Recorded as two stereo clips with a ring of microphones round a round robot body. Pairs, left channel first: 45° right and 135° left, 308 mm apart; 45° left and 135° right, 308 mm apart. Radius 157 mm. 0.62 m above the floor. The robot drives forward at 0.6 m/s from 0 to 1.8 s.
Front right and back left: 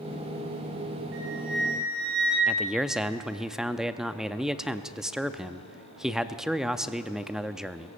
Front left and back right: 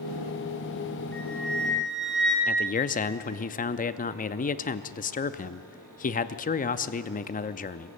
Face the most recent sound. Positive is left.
turn(degrees=50)